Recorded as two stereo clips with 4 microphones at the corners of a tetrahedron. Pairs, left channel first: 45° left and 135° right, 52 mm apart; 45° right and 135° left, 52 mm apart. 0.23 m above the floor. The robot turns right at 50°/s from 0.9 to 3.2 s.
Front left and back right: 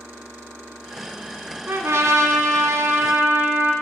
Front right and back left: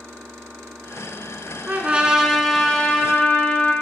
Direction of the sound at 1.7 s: 170° right.